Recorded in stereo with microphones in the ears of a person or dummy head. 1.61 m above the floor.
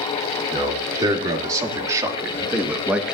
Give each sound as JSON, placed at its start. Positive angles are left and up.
{"t": 0.5, "sound": "a man speaking", "side_deg": -20, "distance_m": 3.5}